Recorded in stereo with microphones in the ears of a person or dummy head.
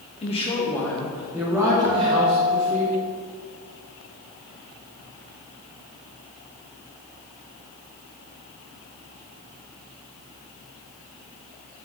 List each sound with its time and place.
0.2 s a woman speaking: 30° left (ahead or behind), 1.8 m; by 2.8 s 45° right (ahead or behind), 3 m
1.8 s a guitar: 15° right (ahead or behind), 0.9 m